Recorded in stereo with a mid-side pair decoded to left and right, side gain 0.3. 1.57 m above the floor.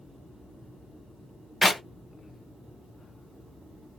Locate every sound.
1.6 s a clap: 30° left, 1.6 m